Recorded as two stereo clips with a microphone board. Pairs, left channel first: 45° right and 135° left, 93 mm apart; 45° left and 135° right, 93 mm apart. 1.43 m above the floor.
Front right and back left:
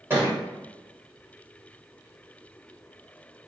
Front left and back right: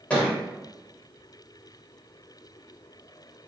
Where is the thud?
110° left, 1.2 m.